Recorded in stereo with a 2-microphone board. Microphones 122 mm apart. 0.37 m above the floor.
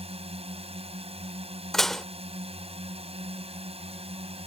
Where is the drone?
60° right (ahead or behind).